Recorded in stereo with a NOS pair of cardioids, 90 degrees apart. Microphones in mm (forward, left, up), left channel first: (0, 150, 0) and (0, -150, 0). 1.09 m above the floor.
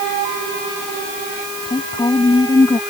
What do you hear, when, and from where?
1.6 s a woman speaking: 15° left